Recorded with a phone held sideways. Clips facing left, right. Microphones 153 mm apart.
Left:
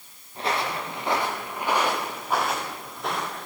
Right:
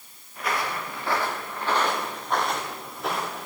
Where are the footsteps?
30° left (ahead or behind), 6 m; by 3.5 s 5° right (ahead or behind), 7.5 m.